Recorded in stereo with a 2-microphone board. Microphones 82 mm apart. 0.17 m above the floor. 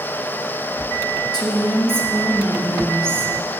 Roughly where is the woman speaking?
Left.